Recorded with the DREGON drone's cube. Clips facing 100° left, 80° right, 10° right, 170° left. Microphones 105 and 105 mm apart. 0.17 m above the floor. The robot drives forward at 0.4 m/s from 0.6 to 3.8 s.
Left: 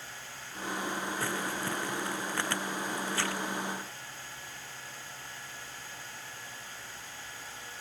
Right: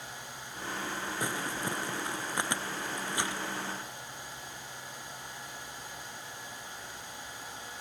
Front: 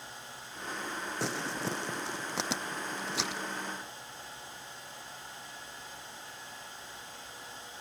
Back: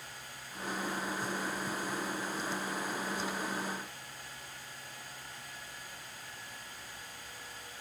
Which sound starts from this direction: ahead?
Crumpling, at 1.2 s.